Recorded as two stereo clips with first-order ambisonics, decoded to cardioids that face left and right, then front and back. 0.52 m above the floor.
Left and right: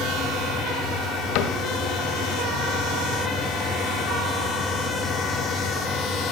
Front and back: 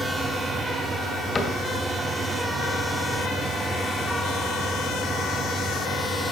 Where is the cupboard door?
70° left, 2 m.